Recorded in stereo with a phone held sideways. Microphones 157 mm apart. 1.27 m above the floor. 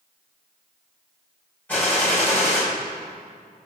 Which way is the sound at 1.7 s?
10° left (ahead or behind).